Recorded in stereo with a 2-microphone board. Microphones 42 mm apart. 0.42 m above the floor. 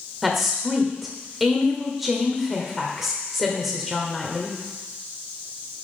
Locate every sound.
0.2 s a woman speaking: 5° right (ahead or behind), 1.2 m